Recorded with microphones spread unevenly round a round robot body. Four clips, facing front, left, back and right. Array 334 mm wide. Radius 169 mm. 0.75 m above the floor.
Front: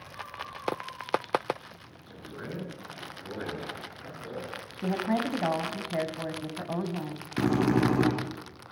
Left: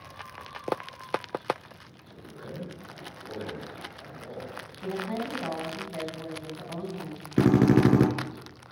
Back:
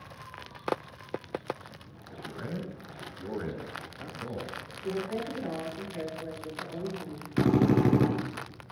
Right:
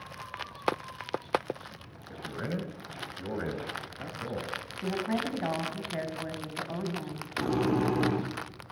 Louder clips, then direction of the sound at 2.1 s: Right 6 dB, back 1 dB; 95° right.